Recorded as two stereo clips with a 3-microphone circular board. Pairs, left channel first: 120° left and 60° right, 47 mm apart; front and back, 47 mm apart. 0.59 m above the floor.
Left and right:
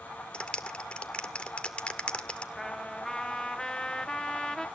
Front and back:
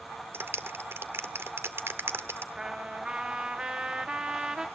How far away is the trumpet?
About 1.3 m.